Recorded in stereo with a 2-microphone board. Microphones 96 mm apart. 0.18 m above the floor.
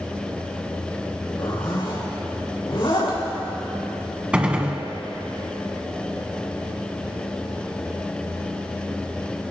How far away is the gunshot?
About 1.2 m.